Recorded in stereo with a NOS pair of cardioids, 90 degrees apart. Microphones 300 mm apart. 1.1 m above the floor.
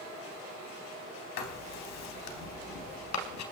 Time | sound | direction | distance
1.4 | writing | 70° left | 3.5 m